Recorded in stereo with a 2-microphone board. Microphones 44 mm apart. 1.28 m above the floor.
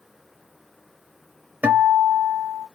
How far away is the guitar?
About 1.0 m.